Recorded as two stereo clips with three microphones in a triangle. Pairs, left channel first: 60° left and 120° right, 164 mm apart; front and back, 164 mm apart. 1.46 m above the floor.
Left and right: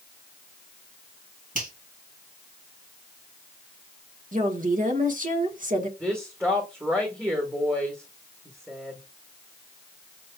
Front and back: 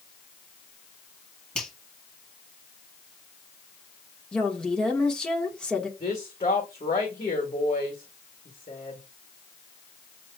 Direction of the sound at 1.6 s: 85° right.